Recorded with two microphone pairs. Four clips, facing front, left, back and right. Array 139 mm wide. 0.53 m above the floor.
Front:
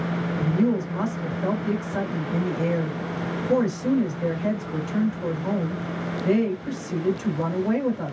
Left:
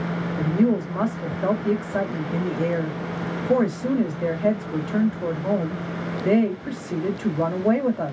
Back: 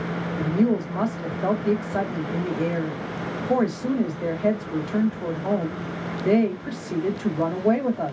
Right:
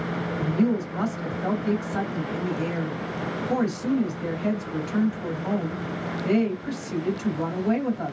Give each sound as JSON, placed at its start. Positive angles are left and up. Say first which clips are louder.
{"t": 0.4, "sound": "a woman speaking", "louder": "left 3 dB, back 1 dB", "azimuth_deg": 125, "distance_m": 2.0}